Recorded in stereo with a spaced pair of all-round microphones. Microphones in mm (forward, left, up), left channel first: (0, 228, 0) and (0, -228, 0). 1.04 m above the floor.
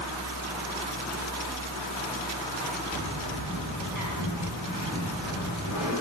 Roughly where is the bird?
Left.